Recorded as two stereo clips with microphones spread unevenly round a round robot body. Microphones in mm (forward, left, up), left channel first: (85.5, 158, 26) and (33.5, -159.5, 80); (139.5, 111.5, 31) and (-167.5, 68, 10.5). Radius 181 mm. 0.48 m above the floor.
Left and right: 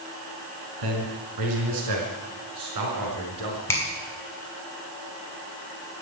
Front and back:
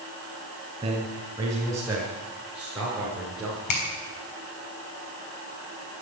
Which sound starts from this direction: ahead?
A finger snap, at 3.7 s.